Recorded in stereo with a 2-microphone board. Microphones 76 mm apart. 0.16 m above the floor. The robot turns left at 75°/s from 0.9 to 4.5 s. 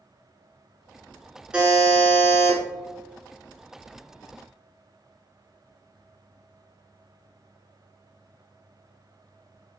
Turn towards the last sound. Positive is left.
turn(degrees=-25)